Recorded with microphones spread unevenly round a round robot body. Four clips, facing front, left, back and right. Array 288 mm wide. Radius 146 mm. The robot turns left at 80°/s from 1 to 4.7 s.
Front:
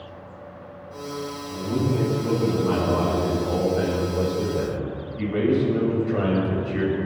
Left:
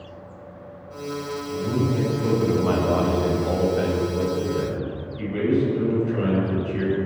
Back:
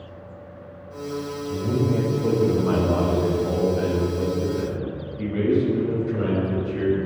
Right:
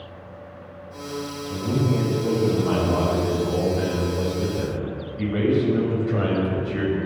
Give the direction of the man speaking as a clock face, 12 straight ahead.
4 o'clock.